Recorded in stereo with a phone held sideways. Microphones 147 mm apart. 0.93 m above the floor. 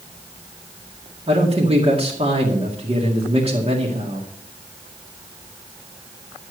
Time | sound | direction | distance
1.3 | a man speaking | 40° right (ahead or behind) | 2 m